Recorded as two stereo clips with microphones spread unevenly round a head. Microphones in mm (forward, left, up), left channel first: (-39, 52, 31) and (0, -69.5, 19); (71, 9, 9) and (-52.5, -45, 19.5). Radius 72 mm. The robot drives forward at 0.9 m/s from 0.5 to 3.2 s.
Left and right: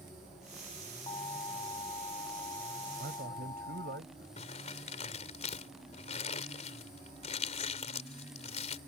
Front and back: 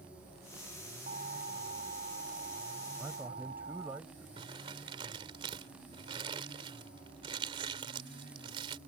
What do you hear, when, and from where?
1.1 s an alarm: 165° left
3.0 s a man speaking: 80° right
4.4 s crumpling: 145° left